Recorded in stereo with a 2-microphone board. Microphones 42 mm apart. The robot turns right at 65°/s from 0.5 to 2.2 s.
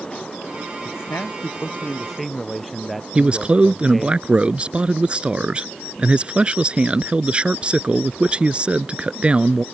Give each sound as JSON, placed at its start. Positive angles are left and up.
{"t": 0.8, "sound": "a man speaking", "azimuth_deg": 90}
{"t": 3.1, "sound": "a man speaking", "side_deg": -25}